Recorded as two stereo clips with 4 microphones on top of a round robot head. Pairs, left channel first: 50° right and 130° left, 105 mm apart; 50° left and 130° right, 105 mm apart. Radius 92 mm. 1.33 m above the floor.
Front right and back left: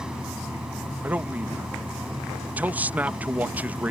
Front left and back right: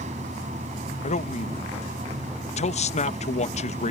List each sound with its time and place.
0.0 s running water: 145° right
1.0 s a man speaking: 55° left